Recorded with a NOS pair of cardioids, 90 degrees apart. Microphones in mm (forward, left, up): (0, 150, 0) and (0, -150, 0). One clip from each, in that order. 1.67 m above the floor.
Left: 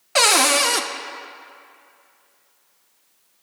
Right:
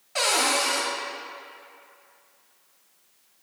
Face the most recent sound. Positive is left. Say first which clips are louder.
# left 7 dB
turn(degrees=45)